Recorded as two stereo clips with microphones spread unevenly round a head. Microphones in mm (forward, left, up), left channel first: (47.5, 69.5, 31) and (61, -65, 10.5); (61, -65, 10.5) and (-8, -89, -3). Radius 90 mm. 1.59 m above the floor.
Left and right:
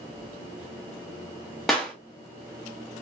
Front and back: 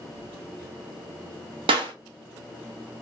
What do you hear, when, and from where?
1.7 s a clap: 175° right, 0.9 m